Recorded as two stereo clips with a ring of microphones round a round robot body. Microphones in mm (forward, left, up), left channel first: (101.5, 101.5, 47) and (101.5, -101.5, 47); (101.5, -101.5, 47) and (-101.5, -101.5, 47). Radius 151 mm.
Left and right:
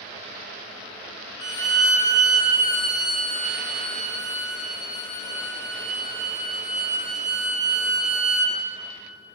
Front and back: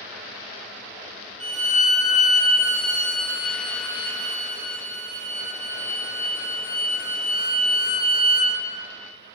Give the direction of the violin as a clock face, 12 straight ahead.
4 o'clock.